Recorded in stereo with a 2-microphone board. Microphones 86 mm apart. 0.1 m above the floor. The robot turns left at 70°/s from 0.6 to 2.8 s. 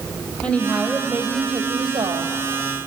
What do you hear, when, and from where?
0.4 s a woman speaking: 15° left, 3 m; by 2.3 s 105° right, 3 m